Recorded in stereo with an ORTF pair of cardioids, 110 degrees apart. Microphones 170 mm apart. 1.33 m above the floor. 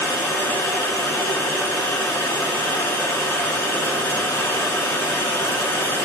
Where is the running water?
15° left, 3.5 m.